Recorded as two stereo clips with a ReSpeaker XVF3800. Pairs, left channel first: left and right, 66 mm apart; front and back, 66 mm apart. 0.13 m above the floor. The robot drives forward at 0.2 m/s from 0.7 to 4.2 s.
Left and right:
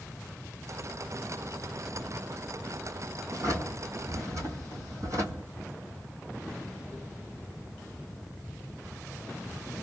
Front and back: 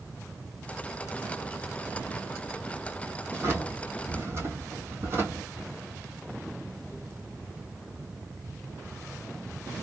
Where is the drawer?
120° right, 1.6 m; by 5.5 s 125° right, 1.7 m.